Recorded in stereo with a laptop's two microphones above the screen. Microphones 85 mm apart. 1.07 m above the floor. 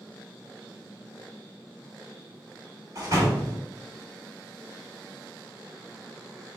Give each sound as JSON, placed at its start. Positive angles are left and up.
{"t": 3.0, "sound": "a door slam", "side_deg": -45, "distance_m": 2.0}